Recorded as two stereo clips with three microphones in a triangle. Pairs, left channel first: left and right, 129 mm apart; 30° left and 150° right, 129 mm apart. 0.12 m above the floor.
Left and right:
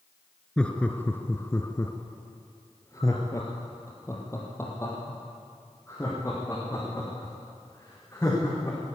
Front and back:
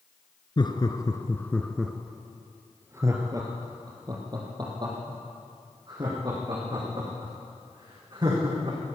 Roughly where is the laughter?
Ahead.